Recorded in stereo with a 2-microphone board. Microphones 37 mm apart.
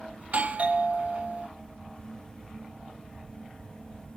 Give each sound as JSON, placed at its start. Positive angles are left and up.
{"t": 0.2, "sound": "a doorbell", "side_deg": -40, "distance_m": 1.2}